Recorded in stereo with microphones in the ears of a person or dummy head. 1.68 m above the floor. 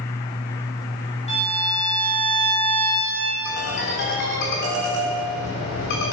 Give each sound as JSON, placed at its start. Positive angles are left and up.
{"t": 1.3, "sound": "a violin", "side_deg": 30, "distance_m": 2.5}
{"t": 3.5, "sound": "a ringtone", "side_deg": 60, "distance_m": 3.5}